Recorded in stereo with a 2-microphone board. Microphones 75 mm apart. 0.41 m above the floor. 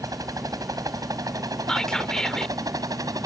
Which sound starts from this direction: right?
A helicopter, at 0.0 s.